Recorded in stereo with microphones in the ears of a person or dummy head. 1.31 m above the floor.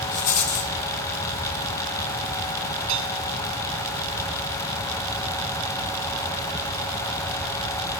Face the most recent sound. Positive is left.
turn(degrees=-70)  # may be behind; listen again after turning